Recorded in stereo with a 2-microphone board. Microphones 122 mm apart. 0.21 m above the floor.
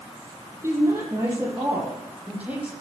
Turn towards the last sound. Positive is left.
turn(degrees=-10)  # may be behind; listen again after turning